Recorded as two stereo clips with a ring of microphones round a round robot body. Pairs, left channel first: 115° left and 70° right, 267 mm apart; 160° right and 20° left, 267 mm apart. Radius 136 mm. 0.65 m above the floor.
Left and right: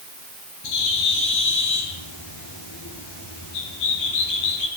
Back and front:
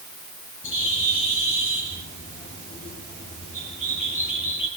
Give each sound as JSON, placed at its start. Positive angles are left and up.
{"t": 0.6, "sound": "a bird", "azimuth_deg": 135, "distance_m": 7.0}